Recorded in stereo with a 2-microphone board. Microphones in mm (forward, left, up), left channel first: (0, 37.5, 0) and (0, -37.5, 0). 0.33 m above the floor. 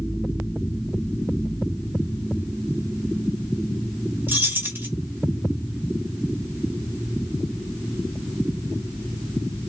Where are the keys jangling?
30° right (ahead or behind), 0.7 m.